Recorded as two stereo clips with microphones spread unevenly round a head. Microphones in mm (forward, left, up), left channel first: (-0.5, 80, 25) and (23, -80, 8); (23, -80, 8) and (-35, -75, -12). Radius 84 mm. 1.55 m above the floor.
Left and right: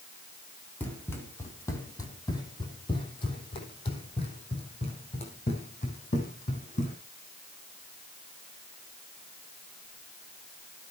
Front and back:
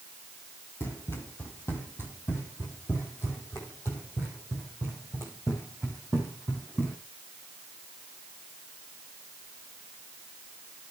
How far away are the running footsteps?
About 3 m.